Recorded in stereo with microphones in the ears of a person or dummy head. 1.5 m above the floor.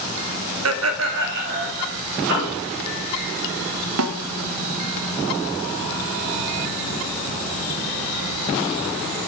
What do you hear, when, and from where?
0.7 s laughter: 70° right (ahead or behind), 0.7 m; by 1.9 s 50° right (ahead or behind), 1.7 m
2.3 s a piano: 60° right (ahead or behind), 4 m
4.0 s a snare drum: 75° right (ahead or behind), 0.8 m